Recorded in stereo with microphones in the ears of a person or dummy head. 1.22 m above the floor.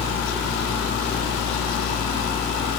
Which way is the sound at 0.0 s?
60° left (ahead or behind).